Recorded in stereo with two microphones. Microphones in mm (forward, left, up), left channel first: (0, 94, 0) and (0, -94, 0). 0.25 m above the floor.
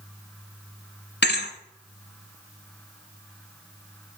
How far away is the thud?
About 1.1 m.